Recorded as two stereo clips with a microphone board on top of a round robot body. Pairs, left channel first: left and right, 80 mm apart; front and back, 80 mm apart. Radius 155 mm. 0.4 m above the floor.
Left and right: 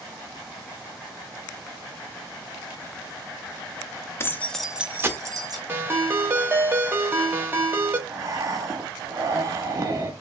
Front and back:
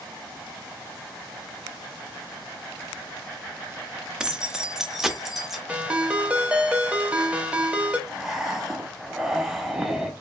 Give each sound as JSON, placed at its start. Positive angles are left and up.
{"t": 4.2, "sound": "keys jangling", "azimuth_deg": 110, "distance_m": 0.6}
{"t": 5.7, "sound": "a ringtone", "azimuth_deg": -120, "distance_m": 0.8}
{"t": 8.1, "sound": "breathing", "azimuth_deg": -95, "distance_m": 0.9}